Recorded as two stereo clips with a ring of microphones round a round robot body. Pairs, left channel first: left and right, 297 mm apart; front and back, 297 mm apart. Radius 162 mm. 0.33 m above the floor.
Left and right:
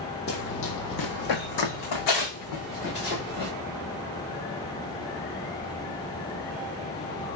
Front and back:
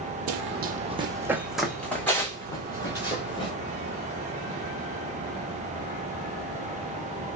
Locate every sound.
0.3 s running footsteps: 145° left, 0.5 m; by 3.5 s 75° left, 1.7 m